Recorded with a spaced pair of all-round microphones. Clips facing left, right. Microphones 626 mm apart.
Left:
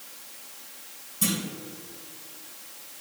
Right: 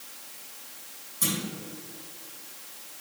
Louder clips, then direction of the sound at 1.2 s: Left 3 dB; 50° left (ahead or behind).